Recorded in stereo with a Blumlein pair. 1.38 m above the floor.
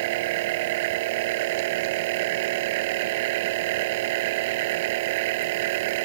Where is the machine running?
50° right.